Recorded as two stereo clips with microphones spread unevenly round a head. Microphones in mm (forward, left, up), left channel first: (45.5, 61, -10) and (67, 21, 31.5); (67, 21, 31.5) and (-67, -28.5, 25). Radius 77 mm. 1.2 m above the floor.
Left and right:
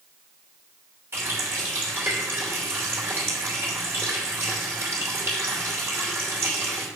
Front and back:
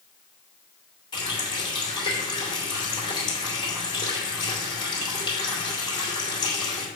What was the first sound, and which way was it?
A running tap, 40° right.